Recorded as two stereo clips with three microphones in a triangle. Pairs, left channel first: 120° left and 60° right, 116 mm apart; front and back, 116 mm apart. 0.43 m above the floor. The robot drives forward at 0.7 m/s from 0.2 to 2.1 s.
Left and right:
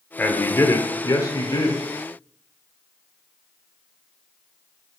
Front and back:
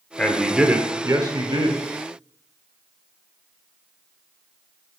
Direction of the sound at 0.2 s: 70° left.